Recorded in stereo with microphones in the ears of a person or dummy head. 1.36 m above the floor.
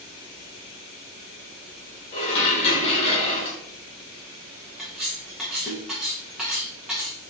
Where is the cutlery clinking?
Centre (ahead or behind), 0.6 m.